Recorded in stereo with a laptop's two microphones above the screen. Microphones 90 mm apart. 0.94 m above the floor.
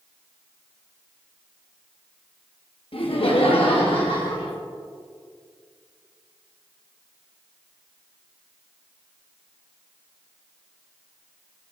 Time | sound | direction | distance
2.9 | laughter | 70° left (ahead or behind) | 1.2 m